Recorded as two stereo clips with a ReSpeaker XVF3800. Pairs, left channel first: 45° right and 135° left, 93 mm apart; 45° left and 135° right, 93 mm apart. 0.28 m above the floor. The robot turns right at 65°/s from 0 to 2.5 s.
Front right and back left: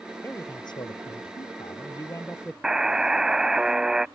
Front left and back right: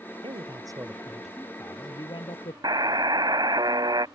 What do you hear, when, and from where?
0.2 s a man speaking: 115° right; by 2.5 s 35° left
2.6 s a buzzer: 145° right